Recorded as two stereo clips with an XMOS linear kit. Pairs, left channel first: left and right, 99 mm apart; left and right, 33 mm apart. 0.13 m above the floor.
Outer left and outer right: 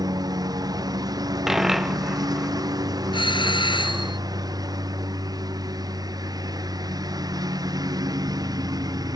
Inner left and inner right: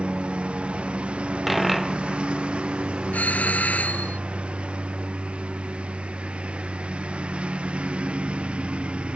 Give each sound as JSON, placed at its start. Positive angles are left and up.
{"t": 0.0, "sound": "a lawn mower", "side_deg": -40}
{"t": 1.5, "sound": "a dropped coin", "side_deg": 0}
{"t": 3.1, "sound": "a doorbell", "side_deg": 55}